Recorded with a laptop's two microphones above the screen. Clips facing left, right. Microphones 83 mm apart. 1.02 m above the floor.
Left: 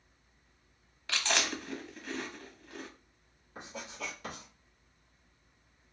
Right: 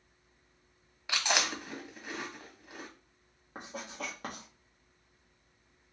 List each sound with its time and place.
1.1 s chewing: 15° right (ahead or behind), 0.9 m
3.5 s writing: 50° right (ahead or behind), 1.4 m